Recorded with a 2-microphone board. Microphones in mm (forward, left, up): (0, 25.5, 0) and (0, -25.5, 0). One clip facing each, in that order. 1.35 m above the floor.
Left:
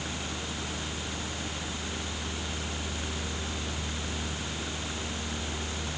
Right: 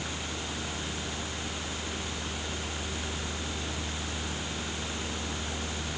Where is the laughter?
I don't hear laughter.